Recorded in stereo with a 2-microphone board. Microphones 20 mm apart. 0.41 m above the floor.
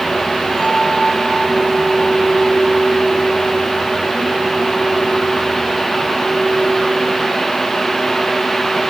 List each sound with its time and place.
0.6 s a bell: 35° left (ahead or behind), 4.5 m